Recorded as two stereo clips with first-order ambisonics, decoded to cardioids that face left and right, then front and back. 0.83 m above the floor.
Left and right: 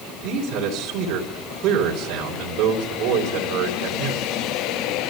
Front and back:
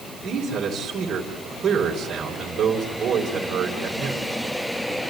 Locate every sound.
0.2 s a man speaking: 120° right, 3.5 m